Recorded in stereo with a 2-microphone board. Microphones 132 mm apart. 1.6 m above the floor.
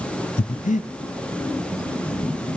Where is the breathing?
70° left (ahead or behind), 0.6 m.